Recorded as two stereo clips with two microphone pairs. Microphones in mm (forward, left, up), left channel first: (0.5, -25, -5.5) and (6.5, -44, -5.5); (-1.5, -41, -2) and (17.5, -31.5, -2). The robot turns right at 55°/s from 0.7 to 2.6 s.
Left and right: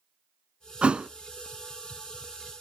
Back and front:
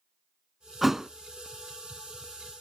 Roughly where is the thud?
Ahead right.